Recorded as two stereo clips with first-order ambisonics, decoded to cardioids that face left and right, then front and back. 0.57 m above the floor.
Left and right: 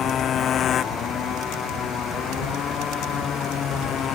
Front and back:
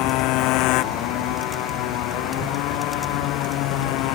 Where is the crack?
No crack in this recording.